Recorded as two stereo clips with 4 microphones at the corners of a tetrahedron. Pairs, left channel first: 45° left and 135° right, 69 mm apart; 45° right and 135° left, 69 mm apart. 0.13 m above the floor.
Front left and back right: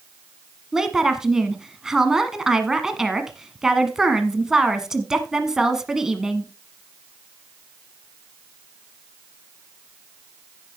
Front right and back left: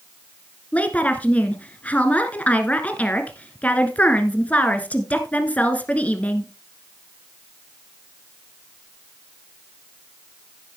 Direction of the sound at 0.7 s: 65° right.